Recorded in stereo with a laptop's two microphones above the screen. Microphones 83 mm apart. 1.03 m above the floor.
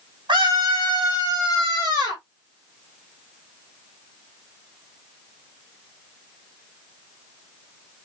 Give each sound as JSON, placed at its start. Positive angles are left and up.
{"t": 0.3, "sound": "a scream", "side_deg": -80, "distance_m": 1.5}